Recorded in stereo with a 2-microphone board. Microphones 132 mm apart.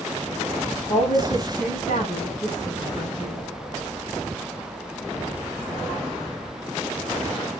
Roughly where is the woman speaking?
Left.